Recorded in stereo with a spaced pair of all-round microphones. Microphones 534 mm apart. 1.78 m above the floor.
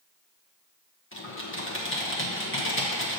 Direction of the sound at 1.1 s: 25° left (ahead or behind).